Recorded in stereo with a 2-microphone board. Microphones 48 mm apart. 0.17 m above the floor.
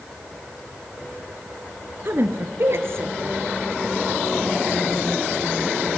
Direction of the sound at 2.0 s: 50° right (ahead or behind).